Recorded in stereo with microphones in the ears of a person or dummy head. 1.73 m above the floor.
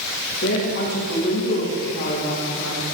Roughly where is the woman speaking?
Left.